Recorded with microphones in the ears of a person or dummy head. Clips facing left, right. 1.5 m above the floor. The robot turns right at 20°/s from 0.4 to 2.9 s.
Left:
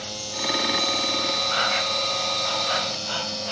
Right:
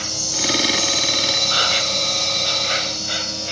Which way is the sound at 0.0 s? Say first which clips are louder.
Right 4 dB; 75° right.